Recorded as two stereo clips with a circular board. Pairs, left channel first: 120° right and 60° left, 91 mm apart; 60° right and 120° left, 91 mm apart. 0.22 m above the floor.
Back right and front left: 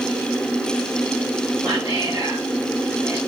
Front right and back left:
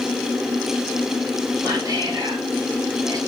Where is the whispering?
90° left, 2.0 m.